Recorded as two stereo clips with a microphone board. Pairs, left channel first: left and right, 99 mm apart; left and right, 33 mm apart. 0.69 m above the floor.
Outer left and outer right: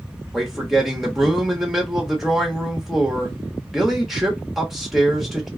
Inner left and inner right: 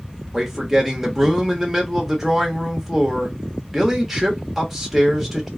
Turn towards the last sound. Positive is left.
turn(degrees=0)  # may be behind; listen again after turning